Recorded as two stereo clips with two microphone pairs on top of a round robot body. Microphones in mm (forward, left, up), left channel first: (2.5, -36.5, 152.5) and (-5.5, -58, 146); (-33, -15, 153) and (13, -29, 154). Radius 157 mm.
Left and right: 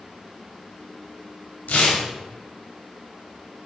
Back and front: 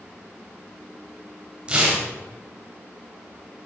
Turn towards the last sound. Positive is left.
turn(degrees=55)